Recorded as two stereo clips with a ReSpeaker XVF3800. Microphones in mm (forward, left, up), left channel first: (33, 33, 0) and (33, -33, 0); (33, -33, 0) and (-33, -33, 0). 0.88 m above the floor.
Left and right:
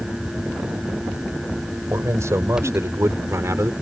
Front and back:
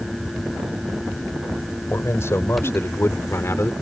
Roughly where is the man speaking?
Ahead right.